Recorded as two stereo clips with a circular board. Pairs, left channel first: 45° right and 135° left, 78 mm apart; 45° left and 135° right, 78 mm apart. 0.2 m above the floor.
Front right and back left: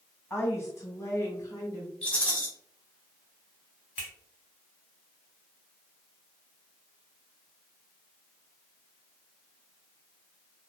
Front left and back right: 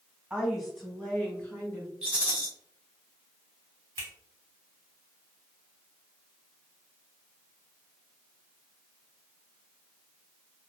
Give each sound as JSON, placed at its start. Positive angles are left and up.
{"t": 0.3, "sound": "a woman speaking", "azimuth_deg": -65, "distance_m": 1.1}
{"t": 2.0, "sound": "a rattle", "azimuth_deg": -90, "distance_m": 1.1}
{"t": 4.0, "sound": "a finger snap", "azimuth_deg": 70, "distance_m": 1.5}